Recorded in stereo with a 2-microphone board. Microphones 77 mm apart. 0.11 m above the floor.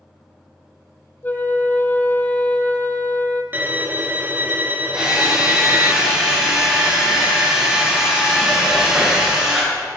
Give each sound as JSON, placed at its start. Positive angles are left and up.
{"t": 1.2, "sound": "a flute", "side_deg": 25, "distance_m": 1.3}
{"t": 3.5, "sound": "a violin", "side_deg": -25, "distance_m": 1.0}
{"t": 4.9, "sound": "a drill", "side_deg": -10, "distance_m": 5.0}